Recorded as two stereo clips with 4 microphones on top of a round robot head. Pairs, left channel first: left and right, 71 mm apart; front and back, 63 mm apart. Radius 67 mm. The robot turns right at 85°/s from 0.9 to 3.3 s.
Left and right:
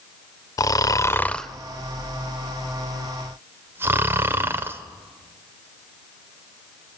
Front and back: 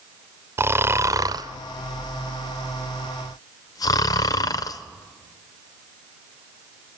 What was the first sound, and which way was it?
Snoring, 125° left.